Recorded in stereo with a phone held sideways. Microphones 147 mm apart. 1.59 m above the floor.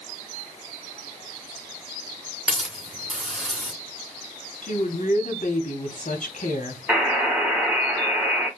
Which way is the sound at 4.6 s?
60° left (ahead or behind).